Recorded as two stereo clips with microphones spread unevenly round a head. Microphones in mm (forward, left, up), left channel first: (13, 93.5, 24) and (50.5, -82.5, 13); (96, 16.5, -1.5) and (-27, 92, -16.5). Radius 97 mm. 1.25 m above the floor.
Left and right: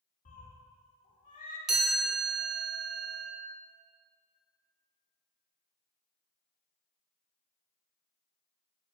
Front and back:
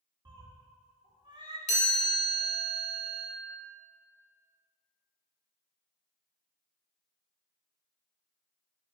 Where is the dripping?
No dripping in this recording.